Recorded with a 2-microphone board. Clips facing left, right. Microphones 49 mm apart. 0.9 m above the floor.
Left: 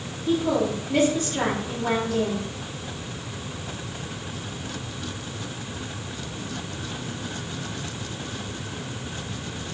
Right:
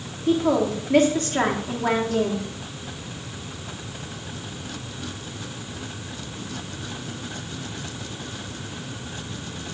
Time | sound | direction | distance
0.3 | a woman speaking | 50° right (ahead or behind) | 1.8 m